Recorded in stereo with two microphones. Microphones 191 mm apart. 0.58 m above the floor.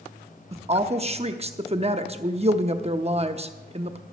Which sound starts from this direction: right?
A woman speaking, at 0.5 s.